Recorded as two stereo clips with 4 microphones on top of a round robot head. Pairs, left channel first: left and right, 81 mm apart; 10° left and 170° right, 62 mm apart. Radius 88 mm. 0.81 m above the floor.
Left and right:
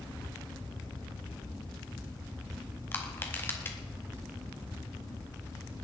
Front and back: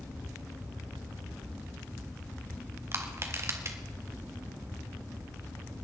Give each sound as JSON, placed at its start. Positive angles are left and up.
{"t": 2.9, "sound": "crushing", "azimuth_deg": 150, "distance_m": 1.8}